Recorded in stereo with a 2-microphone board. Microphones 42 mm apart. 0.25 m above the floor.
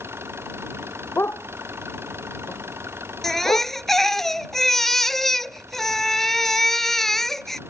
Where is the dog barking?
65° left (ahead or behind).